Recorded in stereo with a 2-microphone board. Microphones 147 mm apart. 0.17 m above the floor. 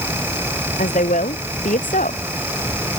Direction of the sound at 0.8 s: 70° left (ahead or behind).